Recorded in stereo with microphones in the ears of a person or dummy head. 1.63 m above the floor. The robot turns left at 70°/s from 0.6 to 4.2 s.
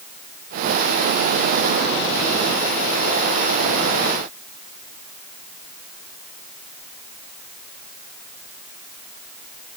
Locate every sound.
Only background noise.